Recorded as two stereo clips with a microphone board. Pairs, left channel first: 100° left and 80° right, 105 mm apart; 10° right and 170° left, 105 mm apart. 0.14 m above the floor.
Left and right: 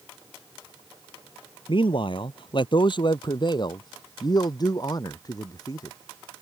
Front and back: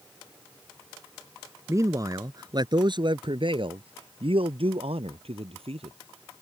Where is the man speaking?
115° left; by 6.0 s 155° left.